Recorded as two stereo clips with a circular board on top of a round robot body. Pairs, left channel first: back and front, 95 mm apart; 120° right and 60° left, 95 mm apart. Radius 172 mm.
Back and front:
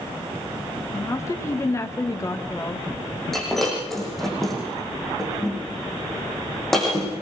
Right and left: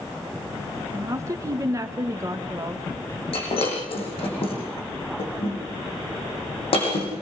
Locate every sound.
0.9 s a woman speaking: 120° left, 2 m
3.3 s breaking glass: 90° right, 7 m